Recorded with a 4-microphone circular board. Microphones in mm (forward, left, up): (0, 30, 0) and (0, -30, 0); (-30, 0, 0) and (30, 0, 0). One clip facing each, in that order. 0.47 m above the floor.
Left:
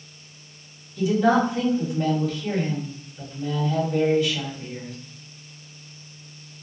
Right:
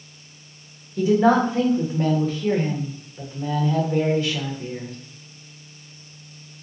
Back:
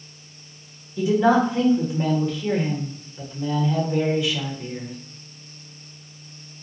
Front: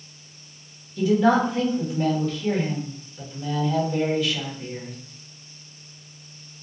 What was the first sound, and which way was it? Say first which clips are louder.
A woman speaking: right 2 dB, back 1 dB; 115° right.